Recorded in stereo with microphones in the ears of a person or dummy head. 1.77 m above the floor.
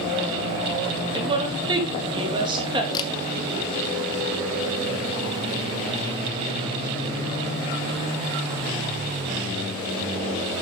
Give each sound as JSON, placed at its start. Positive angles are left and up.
{"t": 1.1, "sound": "a woman speaking", "side_deg": -30, "distance_m": 3.0}
{"t": 2.9, "sound": "a camera shutter", "side_deg": 25, "distance_m": 1.1}